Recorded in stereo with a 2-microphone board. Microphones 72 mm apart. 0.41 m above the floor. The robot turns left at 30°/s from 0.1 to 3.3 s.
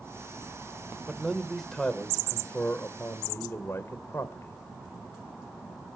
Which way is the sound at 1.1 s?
170° right.